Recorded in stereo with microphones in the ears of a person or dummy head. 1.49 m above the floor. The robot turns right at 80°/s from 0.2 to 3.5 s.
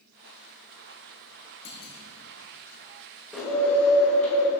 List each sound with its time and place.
1.6 s a clunk: 65° left (ahead or behind), 1.0 m; by 1.9 s 40° left (ahead or behind), 1.0 m
3.3 s a bird: centre (ahead or behind), 1.1 m; by 4.5 s 10° left (ahead or behind), 1.1 m